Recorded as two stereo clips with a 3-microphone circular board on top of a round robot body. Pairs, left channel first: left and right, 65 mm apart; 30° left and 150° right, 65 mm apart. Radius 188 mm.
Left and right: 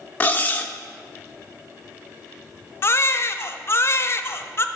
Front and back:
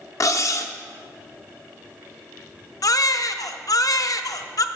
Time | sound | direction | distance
0.2 | cutlery clinking | 35° left | 1.0 m
2.8 | a baby crying | 45° left | 0.7 m